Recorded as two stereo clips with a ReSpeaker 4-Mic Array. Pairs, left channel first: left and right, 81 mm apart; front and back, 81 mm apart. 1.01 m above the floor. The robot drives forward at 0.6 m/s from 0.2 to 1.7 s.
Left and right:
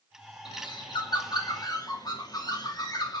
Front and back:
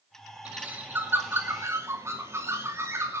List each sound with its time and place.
0.5 s a bird: 105° left, 2 m; by 3.2 s 125° left, 2.5 m